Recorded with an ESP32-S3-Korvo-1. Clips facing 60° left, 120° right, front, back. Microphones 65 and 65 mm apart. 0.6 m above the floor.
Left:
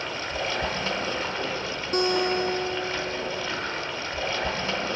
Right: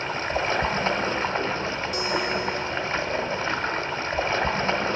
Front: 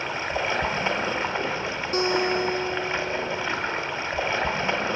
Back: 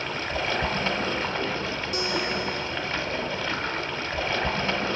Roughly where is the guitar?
Ahead left.